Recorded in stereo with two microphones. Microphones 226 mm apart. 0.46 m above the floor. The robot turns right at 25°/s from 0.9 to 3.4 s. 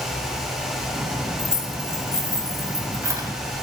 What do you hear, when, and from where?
1.4 s keys jangling: 30° left (ahead or behind), 1.7 m; by 3.3 s 20° right (ahead or behind), 1.7 m